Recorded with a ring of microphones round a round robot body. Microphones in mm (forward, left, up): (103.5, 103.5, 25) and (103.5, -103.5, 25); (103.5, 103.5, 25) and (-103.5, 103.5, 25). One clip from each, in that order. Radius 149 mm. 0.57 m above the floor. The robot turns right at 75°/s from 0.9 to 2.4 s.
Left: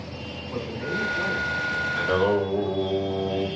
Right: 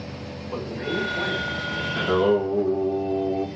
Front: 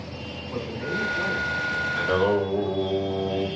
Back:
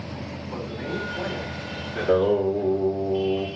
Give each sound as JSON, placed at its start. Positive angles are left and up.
{"t": 0.5, "sound": "a man speaking", "azimuth_deg": -135, "distance_m": 3.0}
{"t": 1.9, "sound": "singing", "azimuth_deg": -85, "distance_m": 2.5}